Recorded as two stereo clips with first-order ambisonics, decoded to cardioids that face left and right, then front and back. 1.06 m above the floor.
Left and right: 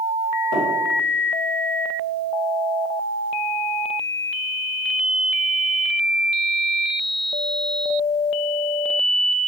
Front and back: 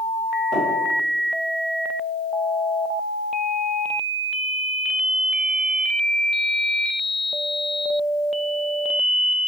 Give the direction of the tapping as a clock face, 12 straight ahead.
3 o'clock.